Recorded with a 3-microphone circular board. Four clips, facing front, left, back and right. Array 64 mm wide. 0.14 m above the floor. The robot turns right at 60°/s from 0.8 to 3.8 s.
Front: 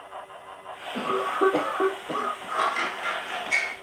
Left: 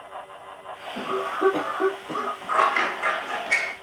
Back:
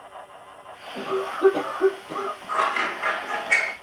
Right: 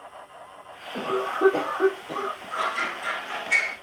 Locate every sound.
0.9 s a cough: 55° right, 4 m; by 2.4 s 30° left, 4 m
2.5 s scissors: 95° left, 1.4 m; by 3.7 s 170° left, 1.4 m